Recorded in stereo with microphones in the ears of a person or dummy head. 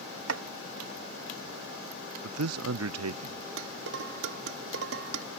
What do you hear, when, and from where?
0.3 s chopping: 75° right (ahead or behind)
2.2 s a man speaking: 85° right
3.6 s dishes clattering: 75° right (ahead or behind)